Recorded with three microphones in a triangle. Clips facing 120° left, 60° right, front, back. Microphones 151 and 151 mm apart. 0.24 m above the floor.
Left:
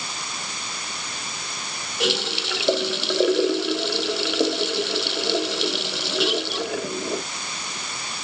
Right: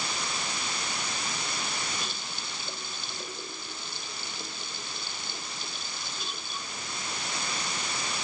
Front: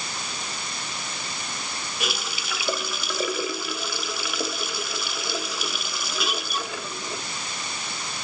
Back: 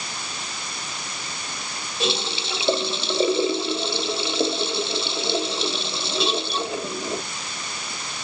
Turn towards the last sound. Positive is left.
turn(degrees=115)